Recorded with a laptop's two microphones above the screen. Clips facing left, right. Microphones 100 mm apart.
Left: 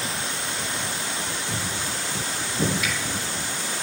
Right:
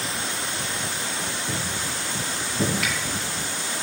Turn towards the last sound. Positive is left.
turn(degrees=-70)  # may be behind; listen again after turning